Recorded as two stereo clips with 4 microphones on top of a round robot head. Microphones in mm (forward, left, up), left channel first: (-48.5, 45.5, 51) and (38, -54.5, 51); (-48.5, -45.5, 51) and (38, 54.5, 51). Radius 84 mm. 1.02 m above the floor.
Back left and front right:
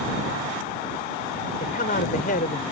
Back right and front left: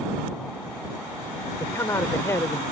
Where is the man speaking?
160° left.